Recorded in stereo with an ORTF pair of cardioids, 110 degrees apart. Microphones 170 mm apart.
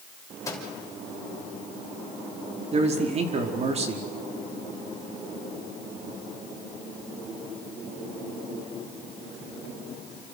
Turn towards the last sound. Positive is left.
turn(degrees=-40)